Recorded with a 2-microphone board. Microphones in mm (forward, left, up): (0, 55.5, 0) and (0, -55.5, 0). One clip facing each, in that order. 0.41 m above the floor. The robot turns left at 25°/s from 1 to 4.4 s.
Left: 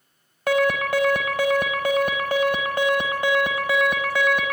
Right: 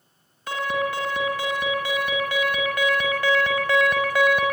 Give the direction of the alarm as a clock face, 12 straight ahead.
9 o'clock.